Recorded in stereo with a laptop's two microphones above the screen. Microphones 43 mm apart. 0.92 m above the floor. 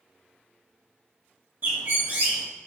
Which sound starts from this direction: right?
A bird, at 1.6 s.